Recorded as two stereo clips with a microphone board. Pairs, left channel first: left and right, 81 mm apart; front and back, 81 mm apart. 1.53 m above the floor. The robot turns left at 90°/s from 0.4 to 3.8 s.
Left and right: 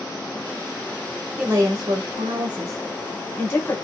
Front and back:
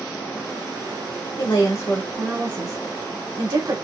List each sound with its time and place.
1.4 s a woman speaking: 20° right, 2 m; by 3.8 s 130° left, 2 m